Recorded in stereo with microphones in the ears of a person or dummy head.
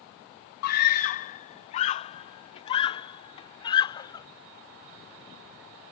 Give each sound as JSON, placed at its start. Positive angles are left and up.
{"t": 0.6, "sound": "a scream", "side_deg": 60}